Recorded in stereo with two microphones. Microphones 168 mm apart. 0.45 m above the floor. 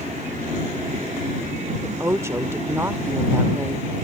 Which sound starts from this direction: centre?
A woman speaking, at 1.8 s.